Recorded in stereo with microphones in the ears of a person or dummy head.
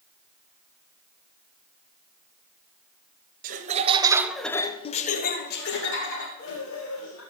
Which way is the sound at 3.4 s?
45° right (ahead or behind).